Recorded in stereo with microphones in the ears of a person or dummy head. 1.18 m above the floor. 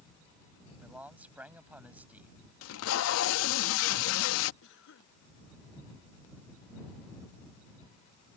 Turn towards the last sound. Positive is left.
turn(degrees=70)  # may be behind; listen again after turning